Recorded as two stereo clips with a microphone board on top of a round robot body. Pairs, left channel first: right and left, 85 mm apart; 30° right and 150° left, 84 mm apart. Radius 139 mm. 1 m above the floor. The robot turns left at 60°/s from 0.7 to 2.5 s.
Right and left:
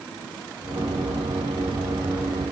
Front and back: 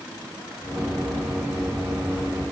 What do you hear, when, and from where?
Only background noise.